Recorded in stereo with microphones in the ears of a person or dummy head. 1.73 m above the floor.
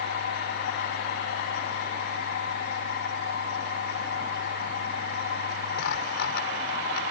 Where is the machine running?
65° left (ahead or behind).